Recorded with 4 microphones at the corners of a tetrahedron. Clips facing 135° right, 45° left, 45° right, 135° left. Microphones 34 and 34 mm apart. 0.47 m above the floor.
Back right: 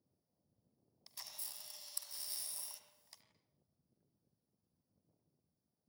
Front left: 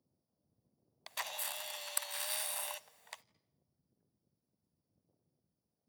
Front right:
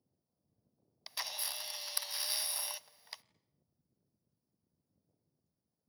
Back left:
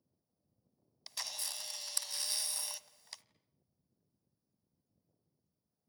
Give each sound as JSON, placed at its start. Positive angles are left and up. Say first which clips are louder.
{"t": 1.1, "sound": "a camera shutter", "louder": "front left 13 dB, front right 2 dB", "azimuth_deg": 30, "distance_m": 0.7}